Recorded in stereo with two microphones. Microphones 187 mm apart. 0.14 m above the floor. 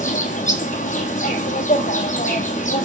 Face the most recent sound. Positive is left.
turn(degrees=45)  # may be behind; listen again after turning